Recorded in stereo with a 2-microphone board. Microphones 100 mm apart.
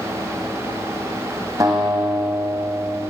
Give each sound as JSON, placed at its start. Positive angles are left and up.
{"t": 1.6, "sound": "a guitar", "side_deg": -35, "distance_m": 1.9}